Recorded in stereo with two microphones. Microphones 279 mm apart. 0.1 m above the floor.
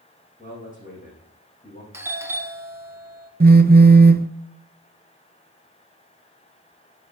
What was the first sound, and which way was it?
A man speaking, 25° left (ahead or behind).